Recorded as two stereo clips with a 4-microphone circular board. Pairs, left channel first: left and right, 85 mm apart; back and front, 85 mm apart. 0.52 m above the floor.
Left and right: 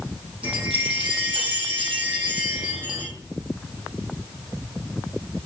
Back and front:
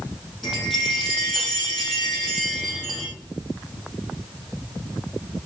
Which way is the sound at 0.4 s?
90° right.